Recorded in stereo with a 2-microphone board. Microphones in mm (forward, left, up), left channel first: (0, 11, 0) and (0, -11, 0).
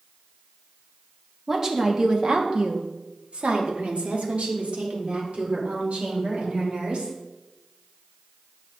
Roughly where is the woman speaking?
Right.